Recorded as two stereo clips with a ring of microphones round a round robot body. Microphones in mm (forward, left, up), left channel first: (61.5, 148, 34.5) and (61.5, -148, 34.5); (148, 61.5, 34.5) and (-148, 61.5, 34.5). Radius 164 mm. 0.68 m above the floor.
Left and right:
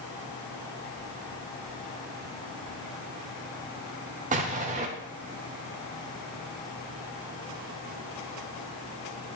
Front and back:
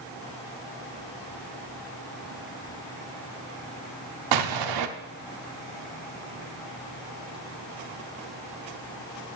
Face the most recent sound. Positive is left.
turn(degrees=-160)